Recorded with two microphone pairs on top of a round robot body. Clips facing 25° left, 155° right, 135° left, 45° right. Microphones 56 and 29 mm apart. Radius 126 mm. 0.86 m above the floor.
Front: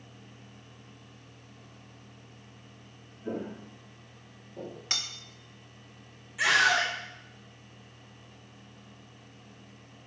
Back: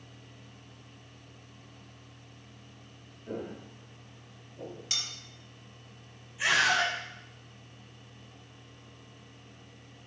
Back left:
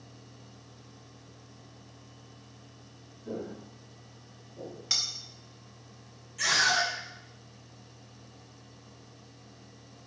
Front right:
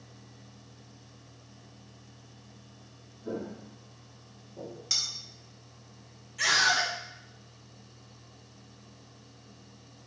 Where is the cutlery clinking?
65° left, 0.5 m.